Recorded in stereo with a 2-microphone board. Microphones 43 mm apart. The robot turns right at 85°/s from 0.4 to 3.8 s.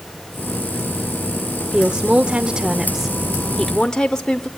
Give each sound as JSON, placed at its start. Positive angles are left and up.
{"t": 1.7, "sound": "a woman speaking", "side_deg": -15, "distance_m": 0.8}